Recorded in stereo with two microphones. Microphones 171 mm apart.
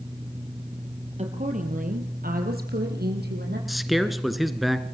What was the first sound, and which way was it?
A woman speaking, 40° right (ahead or behind).